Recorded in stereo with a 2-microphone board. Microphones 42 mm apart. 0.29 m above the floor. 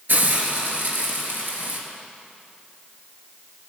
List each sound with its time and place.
0.1 s a hiss: 60° right (ahead or behind), 4.5 m